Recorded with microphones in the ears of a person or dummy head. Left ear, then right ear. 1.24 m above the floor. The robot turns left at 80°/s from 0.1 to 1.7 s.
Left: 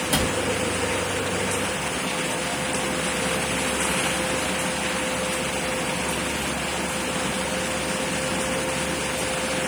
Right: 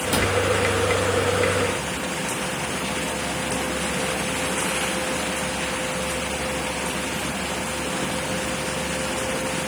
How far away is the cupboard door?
About 1.0 m.